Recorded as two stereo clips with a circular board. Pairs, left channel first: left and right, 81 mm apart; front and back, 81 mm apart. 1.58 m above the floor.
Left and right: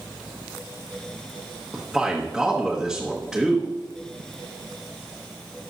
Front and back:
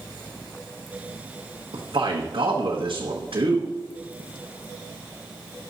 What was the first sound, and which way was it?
A man speaking, straight behind.